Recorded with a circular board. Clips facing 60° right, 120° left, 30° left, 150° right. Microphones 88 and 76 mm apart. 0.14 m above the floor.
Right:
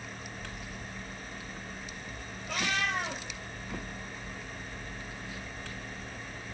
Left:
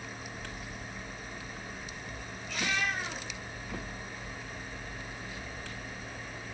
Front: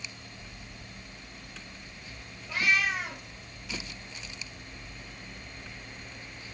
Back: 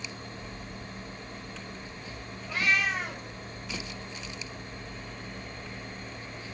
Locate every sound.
2.5 s a cat meowing: 60° right, 2.5 m